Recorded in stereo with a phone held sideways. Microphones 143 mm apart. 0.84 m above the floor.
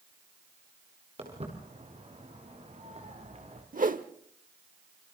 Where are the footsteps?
45° right (ahead or behind), 7 m; by 3.6 s 50° right (ahead or behind), 5 m.